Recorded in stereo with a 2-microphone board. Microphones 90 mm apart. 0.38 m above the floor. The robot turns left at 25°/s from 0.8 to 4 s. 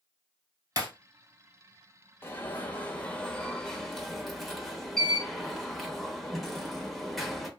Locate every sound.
0.8 s breaking glass: 45° right (ahead or behind), 1.6 m; by 0.9 s 50° right (ahead or behind), 1.6 m
2.2 s an alarm: 45° left, 0.7 m; by 7.5 s straight ahead, 0.7 m